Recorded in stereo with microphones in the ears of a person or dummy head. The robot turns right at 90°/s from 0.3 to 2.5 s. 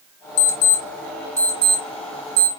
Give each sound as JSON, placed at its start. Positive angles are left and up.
{"t": 0.4, "sound": "an alarm clock", "side_deg": 55, "distance_m": 0.9}